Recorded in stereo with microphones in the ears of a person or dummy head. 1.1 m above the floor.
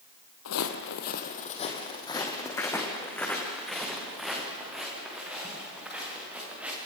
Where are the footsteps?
60° left (ahead or behind), 2 m; by 6.8 s 10° right (ahead or behind), 9.5 m.